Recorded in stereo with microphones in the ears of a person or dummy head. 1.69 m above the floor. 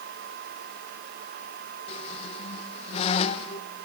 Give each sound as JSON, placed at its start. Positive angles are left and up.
{"t": 1.9, "sound": "a squeak", "side_deg": 40, "distance_m": 1.2}